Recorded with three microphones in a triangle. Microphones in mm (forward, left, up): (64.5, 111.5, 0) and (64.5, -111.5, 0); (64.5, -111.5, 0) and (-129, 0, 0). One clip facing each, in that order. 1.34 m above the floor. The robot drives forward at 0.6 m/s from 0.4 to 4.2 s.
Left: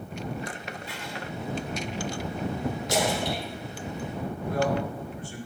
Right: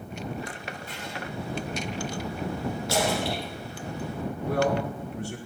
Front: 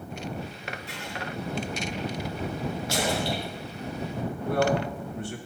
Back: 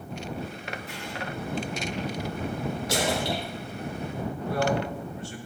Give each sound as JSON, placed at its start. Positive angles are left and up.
{"t": 0.9, "sound": "writing", "azimuth_deg": -50, "distance_m": 3.5}
{"t": 2.9, "sound": "a splash", "azimuth_deg": 160, "distance_m": 3.5}
{"t": 4.5, "sound": "a man speaking", "azimuth_deg": -65, "distance_m": 1.9}